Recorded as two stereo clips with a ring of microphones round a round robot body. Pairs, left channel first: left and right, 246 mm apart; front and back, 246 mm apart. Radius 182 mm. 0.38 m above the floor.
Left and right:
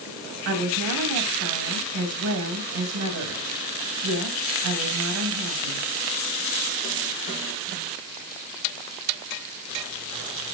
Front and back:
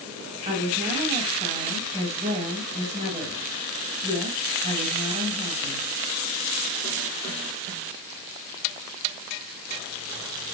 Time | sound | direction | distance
0.5 | a woman speaking | 110° right | 3 m